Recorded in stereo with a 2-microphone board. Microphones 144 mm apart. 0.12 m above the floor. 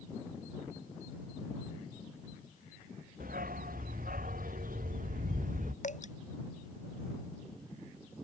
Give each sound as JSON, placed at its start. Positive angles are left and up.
{"t": 3.2, "sound": "a dog barking", "side_deg": -80}
{"t": 5.8, "sound": "dripping", "side_deg": 55}